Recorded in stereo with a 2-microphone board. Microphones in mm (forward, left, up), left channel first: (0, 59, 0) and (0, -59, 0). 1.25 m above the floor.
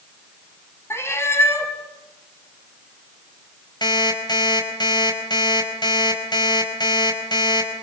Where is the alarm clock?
40° left (ahead or behind), 4.5 m.